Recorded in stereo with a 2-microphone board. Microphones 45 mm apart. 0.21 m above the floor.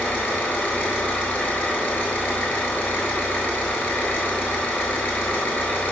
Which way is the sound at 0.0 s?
55° left (ahead or behind).